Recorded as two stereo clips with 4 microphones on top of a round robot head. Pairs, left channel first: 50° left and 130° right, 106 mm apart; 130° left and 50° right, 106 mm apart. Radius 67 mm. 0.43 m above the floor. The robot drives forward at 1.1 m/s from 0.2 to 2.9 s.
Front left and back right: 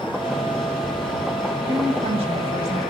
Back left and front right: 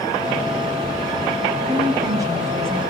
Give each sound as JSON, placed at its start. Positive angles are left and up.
{"t": 1.7, "sound": "a woman speaking", "azimuth_deg": -95, "distance_m": 3.0}